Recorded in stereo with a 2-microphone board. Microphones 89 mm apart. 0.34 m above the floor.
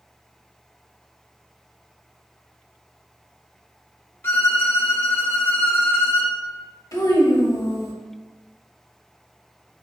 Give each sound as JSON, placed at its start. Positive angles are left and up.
{"t": 4.2, "sound": "a violin", "side_deg": 25, "distance_m": 0.5}
{"t": 6.9, "sound": "a child speaking", "side_deg": 40, "distance_m": 0.7}